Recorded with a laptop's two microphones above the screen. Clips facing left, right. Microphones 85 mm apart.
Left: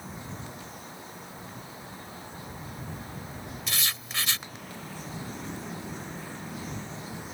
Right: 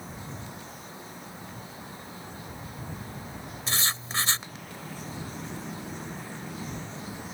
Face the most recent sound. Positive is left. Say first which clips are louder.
# right 5 dB
turn(degrees=-30)  # may be behind; listen again after turning